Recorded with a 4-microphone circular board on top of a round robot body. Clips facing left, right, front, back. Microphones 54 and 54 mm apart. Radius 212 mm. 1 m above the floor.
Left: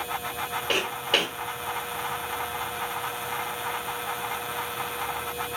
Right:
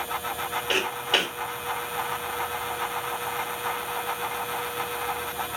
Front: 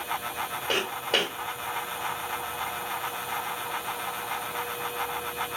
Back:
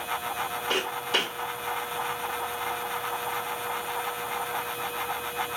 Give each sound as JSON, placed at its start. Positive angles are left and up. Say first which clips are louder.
{"t": 0.7, "sound": "footsteps", "louder": "even, front 1 dB", "azimuth_deg": 10, "distance_m": 1.2}